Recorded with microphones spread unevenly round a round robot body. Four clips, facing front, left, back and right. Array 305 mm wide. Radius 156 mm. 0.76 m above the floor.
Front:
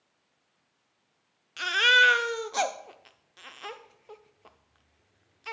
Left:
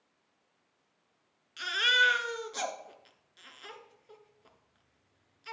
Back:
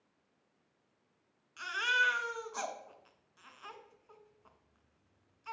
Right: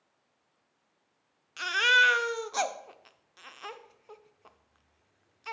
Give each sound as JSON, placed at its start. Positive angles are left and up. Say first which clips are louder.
{"t": 1.6, "sound": "a baby crying", "louder": "right 4 dB, front 10 dB", "azimuth_deg": -10, "distance_m": 0.6}